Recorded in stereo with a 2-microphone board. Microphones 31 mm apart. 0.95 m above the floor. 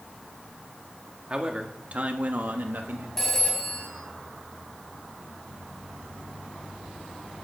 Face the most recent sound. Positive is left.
turn(degrees=10)  # may be behind; listen again after turning